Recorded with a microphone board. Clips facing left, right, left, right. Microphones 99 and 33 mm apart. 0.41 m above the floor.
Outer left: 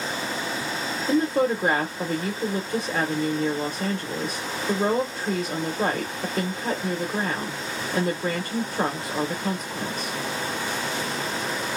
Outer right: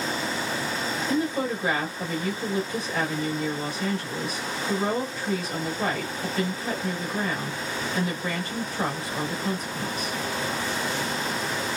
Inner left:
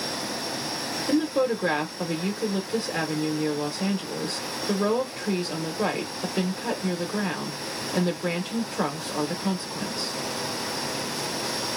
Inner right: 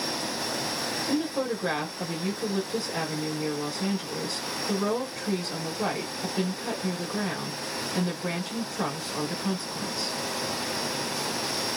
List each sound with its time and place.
1.1 s a woman speaking: 45° left (ahead or behind), 1.2 m